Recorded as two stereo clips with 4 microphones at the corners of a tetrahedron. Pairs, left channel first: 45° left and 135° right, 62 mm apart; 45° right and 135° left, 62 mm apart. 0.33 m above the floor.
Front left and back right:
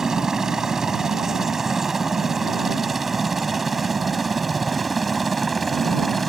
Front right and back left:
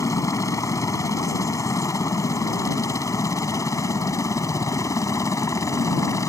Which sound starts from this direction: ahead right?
A helicopter, at 0.0 s.